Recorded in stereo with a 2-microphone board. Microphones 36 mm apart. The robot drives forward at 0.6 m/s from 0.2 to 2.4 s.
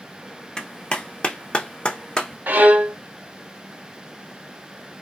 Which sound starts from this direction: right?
A violin, at 2.5 s.